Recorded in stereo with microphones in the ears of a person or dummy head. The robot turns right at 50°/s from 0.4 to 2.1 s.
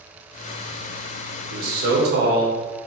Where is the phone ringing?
No phone ringing in this recording.